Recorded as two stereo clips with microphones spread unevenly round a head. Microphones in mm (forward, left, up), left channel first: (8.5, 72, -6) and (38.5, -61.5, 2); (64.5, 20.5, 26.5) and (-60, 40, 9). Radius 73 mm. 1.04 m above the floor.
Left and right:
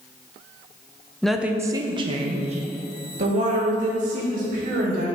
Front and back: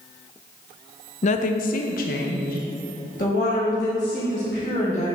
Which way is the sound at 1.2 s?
20° left.